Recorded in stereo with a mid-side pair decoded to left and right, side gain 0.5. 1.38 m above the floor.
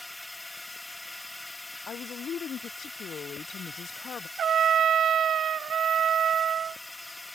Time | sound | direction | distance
0.0 | a drone | 10° left | ?
1.9 | a woman speaking | 50° left | ?
4.4 | a trumpet | 50° right | ?